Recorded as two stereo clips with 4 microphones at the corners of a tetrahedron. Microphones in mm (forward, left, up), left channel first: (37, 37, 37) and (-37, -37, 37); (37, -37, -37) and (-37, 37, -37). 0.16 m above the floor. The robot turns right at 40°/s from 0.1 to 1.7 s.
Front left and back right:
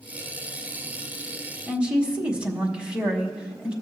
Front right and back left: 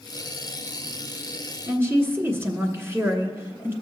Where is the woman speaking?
155° left, 1.4 m; by 3.7 s 160° left, 1.4 m.